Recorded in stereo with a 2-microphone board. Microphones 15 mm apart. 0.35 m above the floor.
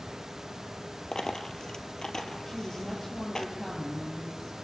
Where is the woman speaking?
15° left (ahead or behind), 8.5 m.